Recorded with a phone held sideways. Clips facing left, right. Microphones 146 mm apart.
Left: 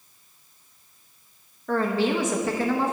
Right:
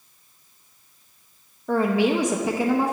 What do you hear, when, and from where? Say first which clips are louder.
1.7 s a woman speaking: right 3 dB; 15° right (ahead or behind), 1.0 m